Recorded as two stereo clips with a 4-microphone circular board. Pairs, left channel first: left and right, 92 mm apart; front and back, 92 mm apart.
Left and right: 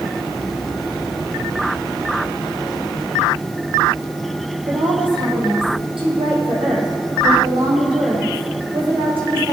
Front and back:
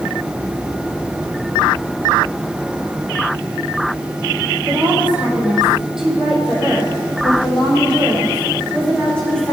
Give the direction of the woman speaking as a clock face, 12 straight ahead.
4 o'clock.